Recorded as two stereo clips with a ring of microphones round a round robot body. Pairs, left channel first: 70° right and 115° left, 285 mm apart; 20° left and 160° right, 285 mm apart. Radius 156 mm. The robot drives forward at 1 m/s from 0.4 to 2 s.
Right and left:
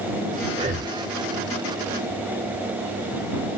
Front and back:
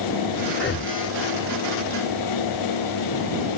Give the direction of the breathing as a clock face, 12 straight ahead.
10 o'clock.